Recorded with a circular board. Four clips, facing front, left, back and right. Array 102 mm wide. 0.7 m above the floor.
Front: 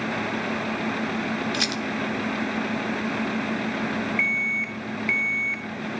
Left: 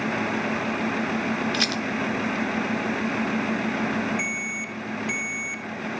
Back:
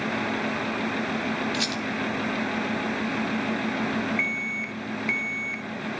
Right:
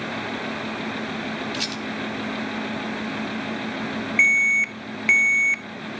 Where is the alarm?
80° right, 0.7 m.